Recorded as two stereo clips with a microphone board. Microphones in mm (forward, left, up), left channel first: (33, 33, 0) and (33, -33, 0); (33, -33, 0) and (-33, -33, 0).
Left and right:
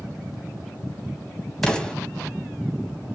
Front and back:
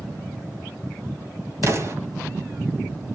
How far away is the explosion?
About 1.9 m.